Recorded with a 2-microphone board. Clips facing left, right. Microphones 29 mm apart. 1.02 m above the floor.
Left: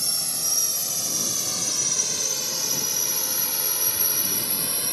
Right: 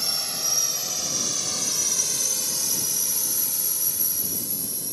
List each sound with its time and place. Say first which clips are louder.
0.0 s a drone: right 1 dB; 15° right (ahead or behind); by 4.9 s 55° left (ahead or behind)